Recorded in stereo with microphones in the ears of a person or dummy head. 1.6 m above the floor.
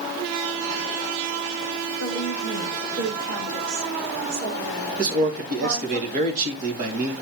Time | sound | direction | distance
2.0 | a woman speaking | 85° right | 5 m
5.0 | a man speaking | 50° right (ahead or behind) | 2.5 m